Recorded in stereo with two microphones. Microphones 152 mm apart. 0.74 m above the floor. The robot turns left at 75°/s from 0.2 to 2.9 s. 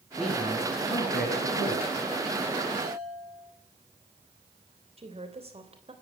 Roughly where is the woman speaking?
Right.